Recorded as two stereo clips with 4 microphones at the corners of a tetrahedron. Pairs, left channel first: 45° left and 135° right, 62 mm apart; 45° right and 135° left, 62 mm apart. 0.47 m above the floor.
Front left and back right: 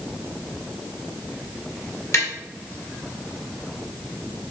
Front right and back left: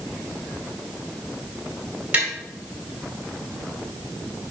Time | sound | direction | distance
2.1 | tapping | 70° left | 2 m